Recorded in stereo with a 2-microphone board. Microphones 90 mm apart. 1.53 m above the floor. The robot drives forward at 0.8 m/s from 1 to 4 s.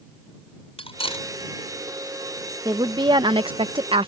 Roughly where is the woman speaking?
Right.